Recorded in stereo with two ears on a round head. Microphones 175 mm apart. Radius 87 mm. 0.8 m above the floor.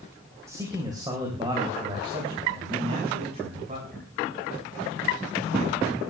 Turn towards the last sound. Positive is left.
turn(degrees=-35)  # may be behind; listen again after turning